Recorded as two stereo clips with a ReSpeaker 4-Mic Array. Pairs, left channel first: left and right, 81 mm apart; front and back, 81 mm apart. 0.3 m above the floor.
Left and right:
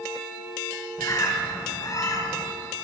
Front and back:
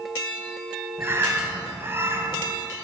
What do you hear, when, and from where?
1.0 s a bird: 125° left, 1.7 m